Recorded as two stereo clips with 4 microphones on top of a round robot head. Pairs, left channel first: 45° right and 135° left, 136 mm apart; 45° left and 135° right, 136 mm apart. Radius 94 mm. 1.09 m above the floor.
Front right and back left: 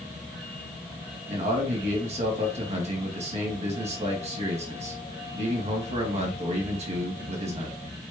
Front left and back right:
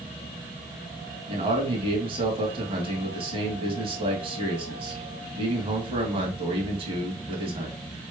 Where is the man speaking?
175° left, 1.7 m.